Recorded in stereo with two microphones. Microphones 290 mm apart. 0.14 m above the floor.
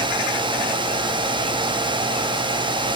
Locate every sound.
Only background noise.